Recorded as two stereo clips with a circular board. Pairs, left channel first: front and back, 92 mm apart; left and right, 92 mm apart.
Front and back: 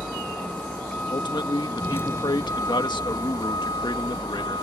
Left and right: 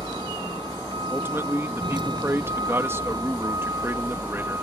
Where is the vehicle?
85° right; by 4.6 s 30° right.